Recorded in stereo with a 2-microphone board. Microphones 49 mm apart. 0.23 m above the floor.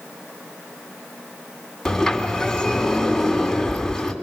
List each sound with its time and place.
1.9 s a sliding door: 10° left (ahead or behind), 2.5 m